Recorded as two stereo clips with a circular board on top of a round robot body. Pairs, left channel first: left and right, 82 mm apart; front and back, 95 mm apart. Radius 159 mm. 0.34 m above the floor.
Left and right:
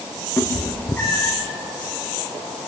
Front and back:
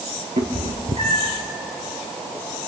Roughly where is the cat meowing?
Behind.